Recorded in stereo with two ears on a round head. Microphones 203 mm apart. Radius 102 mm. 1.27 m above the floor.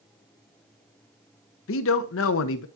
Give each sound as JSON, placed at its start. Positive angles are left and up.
{"t": 1.7, "sound": "a man speaking", "side_deg": 60, "distance_m": 0.7}